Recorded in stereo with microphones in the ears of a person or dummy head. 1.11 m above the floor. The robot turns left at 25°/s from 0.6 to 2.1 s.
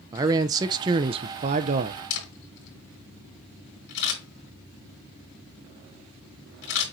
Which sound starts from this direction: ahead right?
A man speaking, at 0.1 s.